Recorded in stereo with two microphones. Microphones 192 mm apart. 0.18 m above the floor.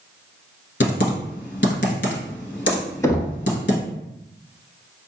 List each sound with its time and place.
0.8 s typing on a keyboard: 65° left (ahead or behind), 0.9 m
3.0 s knocking: 15° left (ahead or behind), 0.7 m